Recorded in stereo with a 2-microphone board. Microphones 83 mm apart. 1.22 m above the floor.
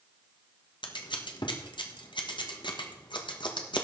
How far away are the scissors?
About 1.4 m.